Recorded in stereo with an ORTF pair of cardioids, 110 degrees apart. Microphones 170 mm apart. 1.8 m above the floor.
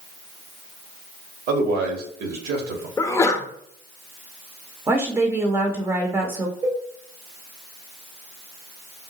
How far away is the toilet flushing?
I don't hear a toilet flushing.